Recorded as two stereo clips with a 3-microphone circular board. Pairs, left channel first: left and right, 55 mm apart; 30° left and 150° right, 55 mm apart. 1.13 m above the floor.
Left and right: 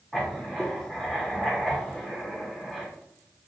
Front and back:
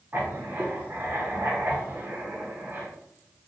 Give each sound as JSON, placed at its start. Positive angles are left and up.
{"t": 0.1, "sound": "writing", "azimuth_deg": 175, "distance_m": 0.9}